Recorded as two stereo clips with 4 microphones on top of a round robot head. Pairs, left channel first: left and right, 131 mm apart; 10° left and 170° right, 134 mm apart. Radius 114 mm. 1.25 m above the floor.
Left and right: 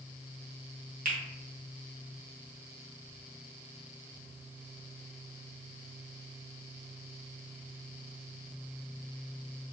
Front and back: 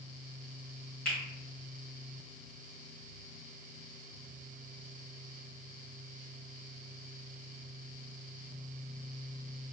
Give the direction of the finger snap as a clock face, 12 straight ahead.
2 o'clock.